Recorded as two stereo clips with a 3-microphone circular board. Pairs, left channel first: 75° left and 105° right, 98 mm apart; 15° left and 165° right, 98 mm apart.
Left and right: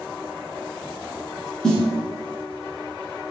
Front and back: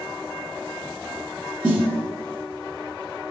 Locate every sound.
1.6 s a snare drum: 150° left, 1.2 m